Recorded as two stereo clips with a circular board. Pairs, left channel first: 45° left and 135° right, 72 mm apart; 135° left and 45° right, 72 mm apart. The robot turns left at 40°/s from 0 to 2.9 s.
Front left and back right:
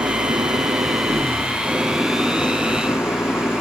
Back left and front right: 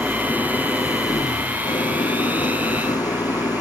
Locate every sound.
0.0 s an engine running: 140° right; by 3.6 s 105° left